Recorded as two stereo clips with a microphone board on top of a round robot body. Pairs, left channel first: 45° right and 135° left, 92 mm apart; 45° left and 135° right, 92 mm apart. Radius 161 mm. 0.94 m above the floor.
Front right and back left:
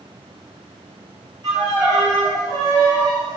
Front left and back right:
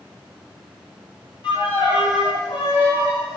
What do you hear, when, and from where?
1.4 s a violin: 85° left, 2 m